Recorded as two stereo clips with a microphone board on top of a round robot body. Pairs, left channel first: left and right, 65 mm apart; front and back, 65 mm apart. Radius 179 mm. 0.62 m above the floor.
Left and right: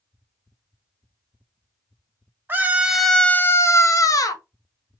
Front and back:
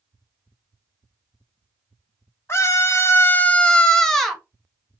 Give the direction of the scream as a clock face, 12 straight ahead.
1 o'clock.